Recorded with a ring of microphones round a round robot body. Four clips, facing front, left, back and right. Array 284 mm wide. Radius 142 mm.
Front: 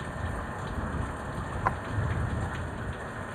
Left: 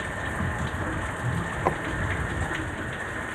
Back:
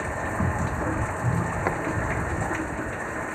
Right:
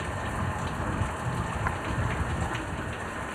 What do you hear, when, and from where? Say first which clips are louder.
0.0 s running water: left 1 dB, back 8 dB; 165° left
1.6 s a drawer: left 9 dB, even; 125° left